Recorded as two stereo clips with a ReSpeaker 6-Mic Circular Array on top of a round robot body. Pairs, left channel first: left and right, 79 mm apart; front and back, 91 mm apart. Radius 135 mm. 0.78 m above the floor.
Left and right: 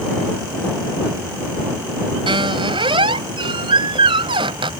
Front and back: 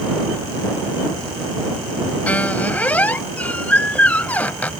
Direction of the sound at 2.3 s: 75° right.